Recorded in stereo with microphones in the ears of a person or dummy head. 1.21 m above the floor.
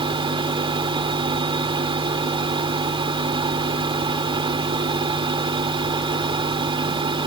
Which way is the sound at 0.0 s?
25° right (ahead or behind).